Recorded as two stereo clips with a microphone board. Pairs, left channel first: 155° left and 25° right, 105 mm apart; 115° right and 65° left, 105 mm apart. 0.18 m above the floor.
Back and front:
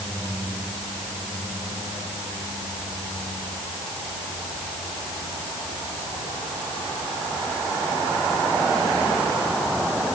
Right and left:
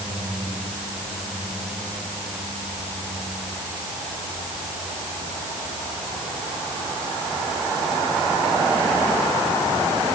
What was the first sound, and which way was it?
Only background noise.